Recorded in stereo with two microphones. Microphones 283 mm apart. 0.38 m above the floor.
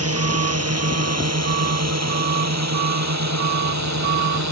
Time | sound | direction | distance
0.0 | a drone | 55° right (ahead or behind) | ?